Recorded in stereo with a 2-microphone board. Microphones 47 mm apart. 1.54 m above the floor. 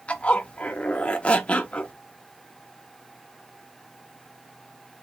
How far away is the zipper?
About 0.7 m.